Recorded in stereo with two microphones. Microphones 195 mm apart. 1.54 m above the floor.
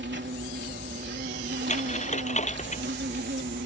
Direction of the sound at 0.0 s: 70° right (ahead or behind).